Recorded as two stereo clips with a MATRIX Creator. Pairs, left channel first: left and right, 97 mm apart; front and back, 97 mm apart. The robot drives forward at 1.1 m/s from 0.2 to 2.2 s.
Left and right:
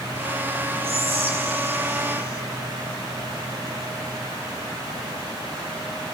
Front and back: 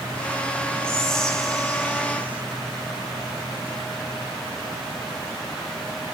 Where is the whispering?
80° right, 3.5 m; by 2.4 s 105° right, 3.5 m.